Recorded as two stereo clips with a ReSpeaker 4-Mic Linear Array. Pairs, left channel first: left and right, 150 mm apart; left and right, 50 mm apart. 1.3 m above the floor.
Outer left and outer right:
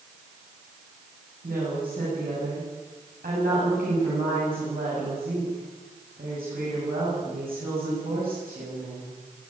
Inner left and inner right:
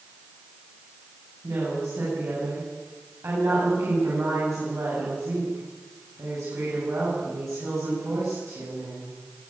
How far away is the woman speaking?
About 8 m.